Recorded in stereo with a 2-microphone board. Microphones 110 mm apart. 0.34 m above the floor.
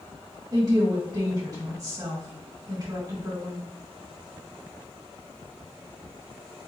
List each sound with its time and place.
0.5 s a woman speaking: 35° right (ahead or behind), 1.8 m